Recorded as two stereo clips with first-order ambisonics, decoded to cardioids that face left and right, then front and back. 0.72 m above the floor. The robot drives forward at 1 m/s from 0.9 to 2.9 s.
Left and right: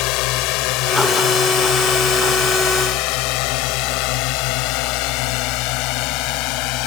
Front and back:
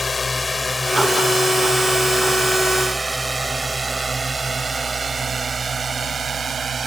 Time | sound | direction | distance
0.0 | a drone | 75° left | ?